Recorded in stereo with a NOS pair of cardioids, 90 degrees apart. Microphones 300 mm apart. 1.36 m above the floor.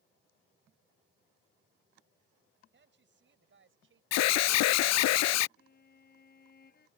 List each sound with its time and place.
2.7 s a woman speaking: 40° right; by 4.0 s 45° right
4.1 s an alarm: 65° left
5.6 s a violin: 35° left